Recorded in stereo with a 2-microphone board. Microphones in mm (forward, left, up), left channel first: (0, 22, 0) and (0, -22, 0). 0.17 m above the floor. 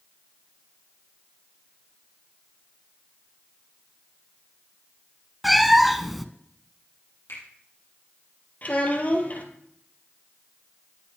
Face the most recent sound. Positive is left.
turn(degrees=35)  # may be behind; listen again after turning